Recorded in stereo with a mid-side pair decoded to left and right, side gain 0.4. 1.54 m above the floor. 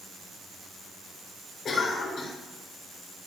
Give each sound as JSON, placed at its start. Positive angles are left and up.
{"t": 1.6, "sound": "a cough", "azimuth_deg": 60, "distance_m": 5.0}